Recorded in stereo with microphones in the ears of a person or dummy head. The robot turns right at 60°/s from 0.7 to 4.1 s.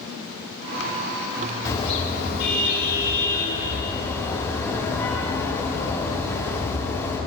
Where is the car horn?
20° left, 5.5 m; by 7.2 s 170° left, 5.5 m.